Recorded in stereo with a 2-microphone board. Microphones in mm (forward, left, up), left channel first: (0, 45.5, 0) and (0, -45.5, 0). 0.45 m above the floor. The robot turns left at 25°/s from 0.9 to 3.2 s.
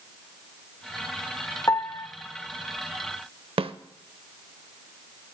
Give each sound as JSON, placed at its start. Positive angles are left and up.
{"t": 1.7, "sound": "a piano", "side_deg": 35, "distance_m": 0.5}
{"t": 3.6, "sound": "a snare drum", "side_deg": -80, "distance_m": 0.5}